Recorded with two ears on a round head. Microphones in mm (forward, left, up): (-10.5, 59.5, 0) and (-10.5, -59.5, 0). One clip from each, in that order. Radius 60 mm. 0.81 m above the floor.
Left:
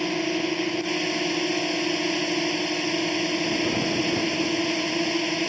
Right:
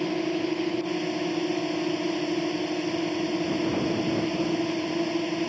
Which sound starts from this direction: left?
A drone, at 0.0 s.